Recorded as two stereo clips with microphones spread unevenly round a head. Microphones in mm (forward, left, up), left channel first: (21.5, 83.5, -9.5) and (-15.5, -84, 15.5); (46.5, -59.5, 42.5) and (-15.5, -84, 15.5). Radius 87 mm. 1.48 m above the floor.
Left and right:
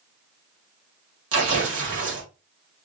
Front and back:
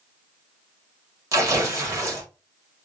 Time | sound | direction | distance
1.3 | tearing paper | 115° right | 2.0 m